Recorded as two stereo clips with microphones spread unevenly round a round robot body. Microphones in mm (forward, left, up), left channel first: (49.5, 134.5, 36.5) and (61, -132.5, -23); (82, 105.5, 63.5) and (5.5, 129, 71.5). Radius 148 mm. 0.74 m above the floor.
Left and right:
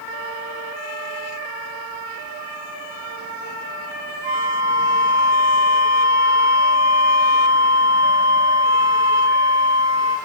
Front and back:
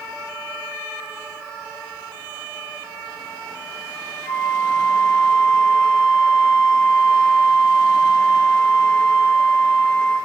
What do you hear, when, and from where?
4.2 s a flute: 105° right, 1.1 m